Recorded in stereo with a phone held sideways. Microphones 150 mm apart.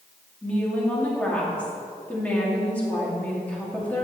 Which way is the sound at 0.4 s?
10° left (ahead or behind).